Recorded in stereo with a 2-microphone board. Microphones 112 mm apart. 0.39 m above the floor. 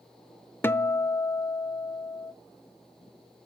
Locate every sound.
0.6 s a guitar: 20° left (ahead or behind), 0.6 m